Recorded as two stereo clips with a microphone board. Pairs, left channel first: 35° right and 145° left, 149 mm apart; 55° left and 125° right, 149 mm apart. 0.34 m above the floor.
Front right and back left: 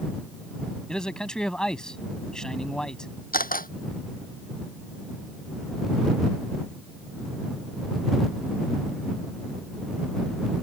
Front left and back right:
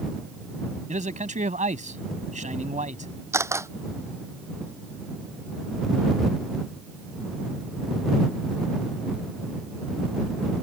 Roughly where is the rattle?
No rattle in this recording.